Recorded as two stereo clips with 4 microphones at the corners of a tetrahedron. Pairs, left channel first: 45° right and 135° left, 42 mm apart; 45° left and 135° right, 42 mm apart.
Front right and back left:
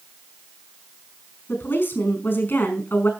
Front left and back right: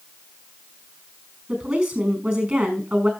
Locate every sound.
1.5 s a woman speaking: 65° right, 5 m